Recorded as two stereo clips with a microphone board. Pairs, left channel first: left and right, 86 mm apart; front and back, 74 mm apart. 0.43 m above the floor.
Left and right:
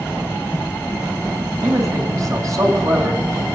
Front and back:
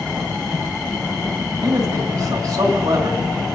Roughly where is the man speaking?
Behind right.